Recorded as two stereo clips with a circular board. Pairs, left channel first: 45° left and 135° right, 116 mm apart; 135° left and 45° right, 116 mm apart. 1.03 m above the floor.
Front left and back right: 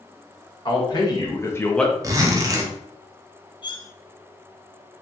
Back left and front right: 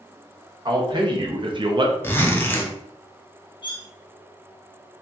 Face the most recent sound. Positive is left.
turn(degrees=90)